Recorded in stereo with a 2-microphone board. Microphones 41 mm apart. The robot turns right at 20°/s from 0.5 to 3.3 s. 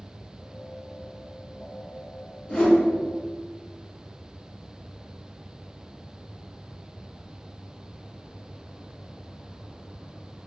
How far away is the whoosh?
About 1.3 m.